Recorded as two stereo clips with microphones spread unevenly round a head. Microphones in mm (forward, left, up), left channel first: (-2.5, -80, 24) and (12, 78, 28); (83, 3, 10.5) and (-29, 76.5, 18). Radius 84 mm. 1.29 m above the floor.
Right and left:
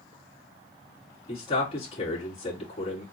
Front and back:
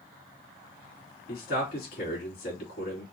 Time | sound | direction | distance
1.3 | a man speaking | 40° right | 3 m